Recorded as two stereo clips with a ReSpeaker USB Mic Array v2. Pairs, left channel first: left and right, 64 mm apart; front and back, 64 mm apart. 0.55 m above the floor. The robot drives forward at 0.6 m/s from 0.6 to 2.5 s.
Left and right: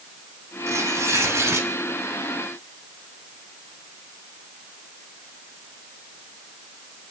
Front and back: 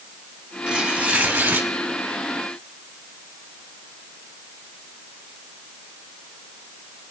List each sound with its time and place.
0.7 s tearing paper: 100° right, 1.7 m; by 1.7 s 125° right, 1.9 m